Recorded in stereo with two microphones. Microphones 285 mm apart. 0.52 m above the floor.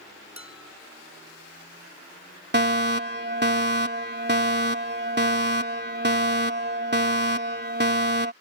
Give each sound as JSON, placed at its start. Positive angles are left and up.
{"t": 0.4, "sound": "dishes clattering", "side_deg": -75}
{"t": 2.5, "sound": "a fire alarm", "side_deg": -35}